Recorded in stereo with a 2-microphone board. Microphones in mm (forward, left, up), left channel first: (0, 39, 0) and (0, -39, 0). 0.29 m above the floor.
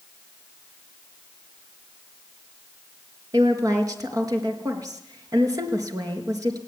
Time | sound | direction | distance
3.3 | a woman speaking | 50° right (ahead or behind) | 4 m